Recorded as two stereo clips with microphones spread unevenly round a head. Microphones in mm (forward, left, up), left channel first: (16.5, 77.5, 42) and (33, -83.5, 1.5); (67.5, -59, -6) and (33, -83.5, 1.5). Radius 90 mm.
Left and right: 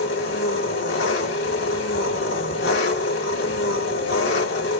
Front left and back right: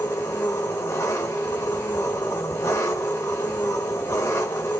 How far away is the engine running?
About 3 m.